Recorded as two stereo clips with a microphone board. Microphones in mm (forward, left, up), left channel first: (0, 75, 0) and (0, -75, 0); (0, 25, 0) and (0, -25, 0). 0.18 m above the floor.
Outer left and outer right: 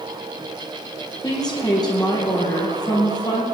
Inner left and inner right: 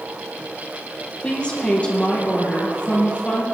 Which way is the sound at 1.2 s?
25° left (ahead or behind).